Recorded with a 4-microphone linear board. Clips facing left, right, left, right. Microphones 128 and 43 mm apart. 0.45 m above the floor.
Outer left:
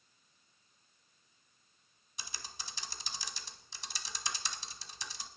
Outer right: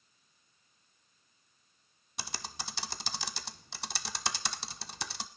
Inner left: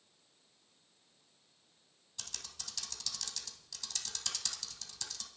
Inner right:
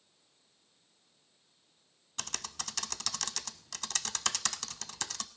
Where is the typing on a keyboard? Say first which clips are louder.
Outer right 7 dB, inner right 9 dB; 70° right (ahead or behind), 0.7 m.